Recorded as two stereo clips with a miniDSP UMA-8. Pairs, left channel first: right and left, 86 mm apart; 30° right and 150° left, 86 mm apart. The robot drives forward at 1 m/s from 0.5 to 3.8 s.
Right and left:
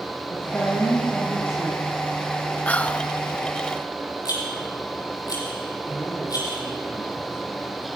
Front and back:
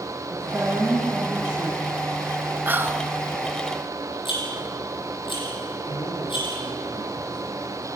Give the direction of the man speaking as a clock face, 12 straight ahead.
1 o'clock.